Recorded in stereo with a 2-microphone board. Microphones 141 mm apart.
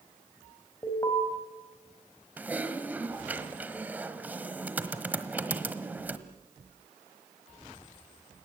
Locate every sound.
0.8 s an alarm: 25° left (ahead or behind), 3.5 m
2.4 s typing on a keyboard: 10° right (ahead or behind), 1.2 m